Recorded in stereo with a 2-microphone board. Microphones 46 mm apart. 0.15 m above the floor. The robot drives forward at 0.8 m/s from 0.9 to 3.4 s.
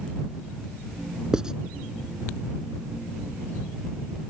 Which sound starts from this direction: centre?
Writing, at 1.3 s.